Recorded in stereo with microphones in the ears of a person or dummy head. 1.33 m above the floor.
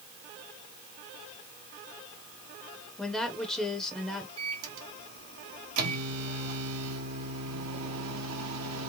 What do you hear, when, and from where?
3.0 s a woman speaking: 5° left (ahead or behind), 0.6 m
4.4 s a microwave: 85° right, 1.1 m